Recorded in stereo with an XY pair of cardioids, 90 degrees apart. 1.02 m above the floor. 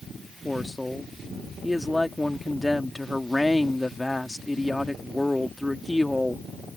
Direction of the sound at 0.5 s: 10° left.